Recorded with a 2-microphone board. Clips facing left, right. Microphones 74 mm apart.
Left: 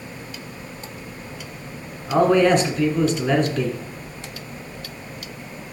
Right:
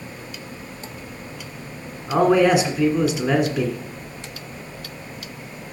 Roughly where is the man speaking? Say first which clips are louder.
Even; centre.